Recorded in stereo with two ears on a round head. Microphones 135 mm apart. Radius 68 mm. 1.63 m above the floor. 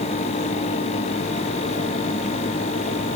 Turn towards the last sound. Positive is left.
No sound to turn to.